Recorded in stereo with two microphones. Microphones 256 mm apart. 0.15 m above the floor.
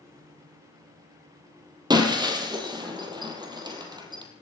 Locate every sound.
1.9 s breaking glass: 15° right (ahead or behind), 3 m